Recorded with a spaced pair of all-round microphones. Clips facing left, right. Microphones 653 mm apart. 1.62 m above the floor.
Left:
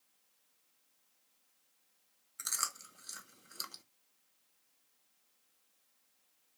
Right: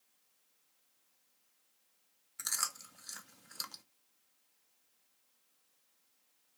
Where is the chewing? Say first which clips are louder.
Even; 25° right (ahead or behind), 0.7 m.